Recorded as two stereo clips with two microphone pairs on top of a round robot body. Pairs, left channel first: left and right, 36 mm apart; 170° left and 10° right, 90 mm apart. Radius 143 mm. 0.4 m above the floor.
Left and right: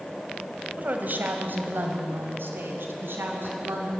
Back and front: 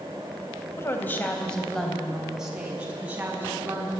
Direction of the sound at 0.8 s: 135° right.